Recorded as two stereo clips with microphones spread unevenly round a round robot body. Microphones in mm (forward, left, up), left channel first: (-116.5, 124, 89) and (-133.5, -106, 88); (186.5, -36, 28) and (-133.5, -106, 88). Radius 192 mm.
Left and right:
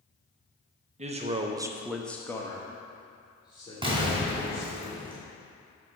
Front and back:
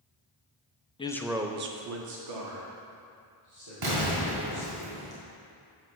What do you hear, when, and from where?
1.0 s a man speaking: 45° right, 0.8 m; by 4.8 s 155° left, 3.5 m
3.8 s an explosion: 165° right, 2.5 m